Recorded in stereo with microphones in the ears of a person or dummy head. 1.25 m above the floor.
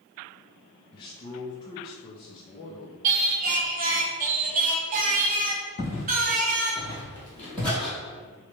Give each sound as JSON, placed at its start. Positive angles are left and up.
{"t": 0.9, "sound": "a man speaking", "side_deg": 25, "distance_m": 0.6}
{"t": 3.0, "sound": "singing", "side_deg": -45, "distance_m": 0.8}
{"t": 5.8, "sound": "footsteps", "side_deg": 35, "distance_m": 1.9}